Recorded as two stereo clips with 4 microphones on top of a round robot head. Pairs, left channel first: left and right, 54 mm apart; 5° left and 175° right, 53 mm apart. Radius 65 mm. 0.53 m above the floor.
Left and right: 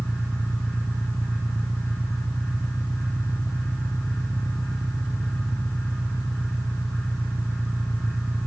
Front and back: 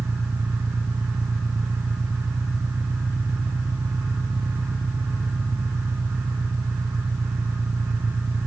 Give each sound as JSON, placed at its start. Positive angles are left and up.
{"t": 0.0, "sound": "an engine running", "azimuth_deg": -145}